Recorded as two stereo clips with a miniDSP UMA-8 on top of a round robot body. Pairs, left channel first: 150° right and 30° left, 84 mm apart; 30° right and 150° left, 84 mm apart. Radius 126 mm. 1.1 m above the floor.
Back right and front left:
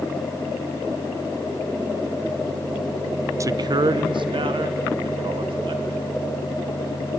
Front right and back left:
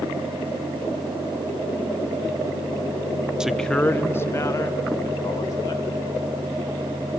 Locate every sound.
3.4 s a man speaking: 70° left, 0.7 m; by 6.2 s 20° left, 3.5 m